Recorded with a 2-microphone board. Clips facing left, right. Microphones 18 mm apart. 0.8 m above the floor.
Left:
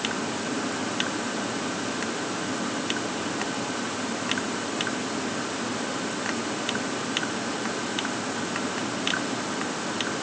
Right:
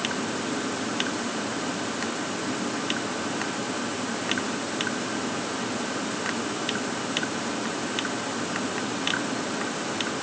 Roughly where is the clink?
No clink in this recording.